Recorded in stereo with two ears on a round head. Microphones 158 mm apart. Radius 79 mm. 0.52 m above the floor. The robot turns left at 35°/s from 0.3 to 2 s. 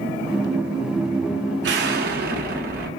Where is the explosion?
70° right (ahead or behind), 1.0 m; by 2.9 s 60° right (ahead or behind), 1.0 m.